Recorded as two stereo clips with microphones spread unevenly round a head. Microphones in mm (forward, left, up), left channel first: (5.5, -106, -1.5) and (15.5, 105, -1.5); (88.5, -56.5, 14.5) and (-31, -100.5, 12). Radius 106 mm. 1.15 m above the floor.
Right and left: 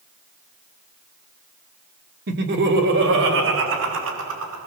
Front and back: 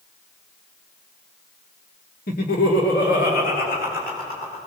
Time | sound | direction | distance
2.3 | laughter | 45° left | 2.5 m